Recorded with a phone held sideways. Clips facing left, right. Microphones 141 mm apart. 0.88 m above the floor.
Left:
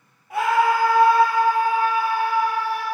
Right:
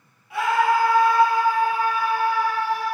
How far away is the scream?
About 1.0 m.